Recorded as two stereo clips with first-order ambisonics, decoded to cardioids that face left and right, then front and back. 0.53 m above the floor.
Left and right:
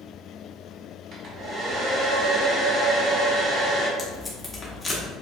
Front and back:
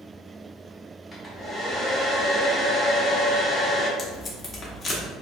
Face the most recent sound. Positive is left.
turn(degrees=35)